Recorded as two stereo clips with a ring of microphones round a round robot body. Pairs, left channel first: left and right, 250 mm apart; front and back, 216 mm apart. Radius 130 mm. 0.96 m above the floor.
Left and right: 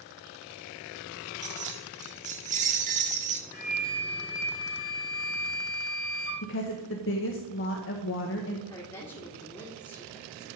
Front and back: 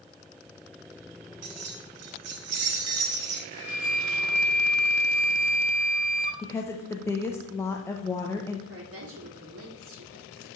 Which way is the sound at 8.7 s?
160° left.